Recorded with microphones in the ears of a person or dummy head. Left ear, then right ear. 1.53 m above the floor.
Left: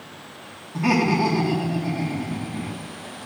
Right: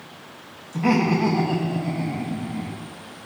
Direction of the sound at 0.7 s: 5° right (ahead or behind).